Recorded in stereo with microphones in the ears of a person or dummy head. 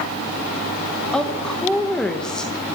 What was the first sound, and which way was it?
A woman speaking, 5° left (ahead or behind).